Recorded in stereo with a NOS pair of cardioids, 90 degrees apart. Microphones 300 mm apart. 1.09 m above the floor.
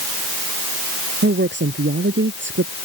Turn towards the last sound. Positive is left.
turn(degrees=-40)